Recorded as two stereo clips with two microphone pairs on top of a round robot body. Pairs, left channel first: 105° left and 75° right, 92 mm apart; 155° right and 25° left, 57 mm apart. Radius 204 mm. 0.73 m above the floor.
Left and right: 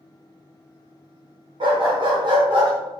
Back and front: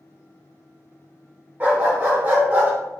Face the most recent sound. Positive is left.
turn(degrees=-35)